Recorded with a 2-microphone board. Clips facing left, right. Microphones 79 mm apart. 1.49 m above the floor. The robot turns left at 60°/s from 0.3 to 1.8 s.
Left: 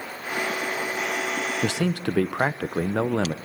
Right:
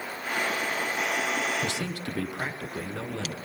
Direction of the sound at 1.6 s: 75° left (ahead or behind).